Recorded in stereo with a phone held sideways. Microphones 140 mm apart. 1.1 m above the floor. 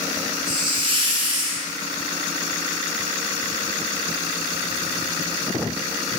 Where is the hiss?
35° right (ahead or behind), 0.5 m.